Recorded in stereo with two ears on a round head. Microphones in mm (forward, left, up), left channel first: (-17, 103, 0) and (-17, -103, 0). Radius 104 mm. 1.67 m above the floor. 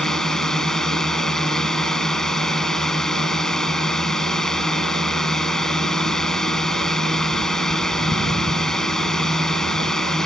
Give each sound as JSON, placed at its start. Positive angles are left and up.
{"t": 0.0, "sound": "a drone", "side_deg": 0}